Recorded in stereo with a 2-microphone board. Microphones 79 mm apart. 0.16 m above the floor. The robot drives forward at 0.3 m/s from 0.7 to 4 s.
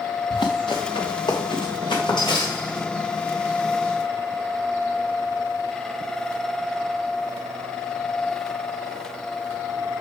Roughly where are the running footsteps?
Left.